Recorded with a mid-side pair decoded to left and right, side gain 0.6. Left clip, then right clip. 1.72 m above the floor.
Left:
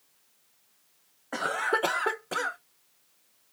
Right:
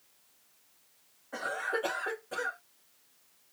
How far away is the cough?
About 1.4 m.